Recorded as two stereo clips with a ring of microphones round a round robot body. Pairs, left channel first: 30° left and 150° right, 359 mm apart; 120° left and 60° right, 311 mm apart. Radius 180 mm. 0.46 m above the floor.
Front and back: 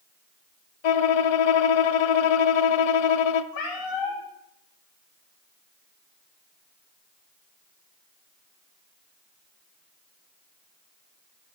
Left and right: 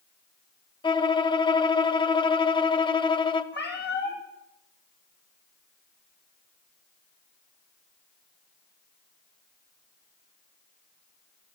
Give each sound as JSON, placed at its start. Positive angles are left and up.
{"t": 0.8, "sound": "a violin", "azimuth_deg": 45, "distance_m": 1.0}
{"t": 3.5, "sound": "a cat meowing", "azimuth_deg": 60, "distance_m": 3.0}